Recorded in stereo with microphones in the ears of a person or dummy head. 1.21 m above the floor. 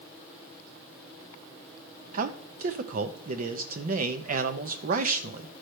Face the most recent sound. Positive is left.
turn(degrees=-50)  # may be behind; listen again after turning